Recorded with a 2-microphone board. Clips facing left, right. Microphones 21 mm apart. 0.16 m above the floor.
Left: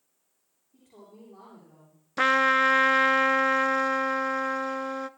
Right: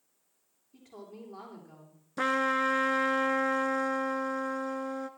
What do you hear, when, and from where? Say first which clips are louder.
0.7 s a woman speaking: right 4 dB; 75° right (ahead or behind), 8.5 m
2.2 s a trumpet: left 6 dB; 45° left (ahead or behind), 0.6 m